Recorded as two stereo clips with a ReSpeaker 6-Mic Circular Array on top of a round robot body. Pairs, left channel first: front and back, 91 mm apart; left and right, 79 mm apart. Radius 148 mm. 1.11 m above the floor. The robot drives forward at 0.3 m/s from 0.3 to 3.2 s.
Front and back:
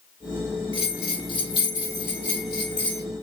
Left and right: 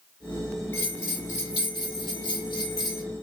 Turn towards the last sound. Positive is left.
turn(degrees=140)